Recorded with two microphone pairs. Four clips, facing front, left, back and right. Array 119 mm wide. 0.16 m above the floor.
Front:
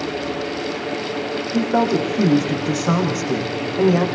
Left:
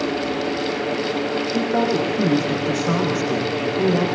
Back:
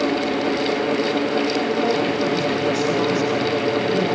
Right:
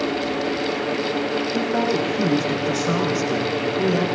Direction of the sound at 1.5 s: 15° left.